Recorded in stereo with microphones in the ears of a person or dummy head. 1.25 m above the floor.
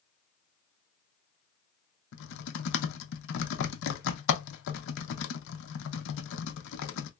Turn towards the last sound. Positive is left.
turn(degrees=70)  # may be behind; listen again after turning